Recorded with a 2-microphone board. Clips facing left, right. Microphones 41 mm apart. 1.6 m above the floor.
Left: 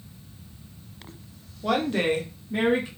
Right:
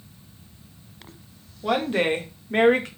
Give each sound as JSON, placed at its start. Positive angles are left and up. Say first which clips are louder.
{"t": 1.6, "sound": "a woman speaking", "louder": "right 1 dB", "side_deg": -5, "distance_m": 0.8}